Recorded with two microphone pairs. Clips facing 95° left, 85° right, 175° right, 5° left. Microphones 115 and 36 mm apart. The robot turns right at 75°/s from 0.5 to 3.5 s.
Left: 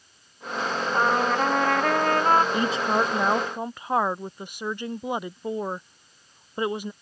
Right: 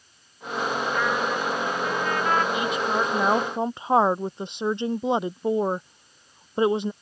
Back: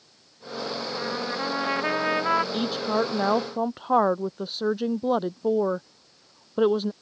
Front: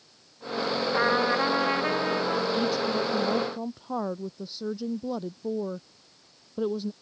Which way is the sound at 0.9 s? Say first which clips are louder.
Left 7 dB, front 8 dB; 40° left.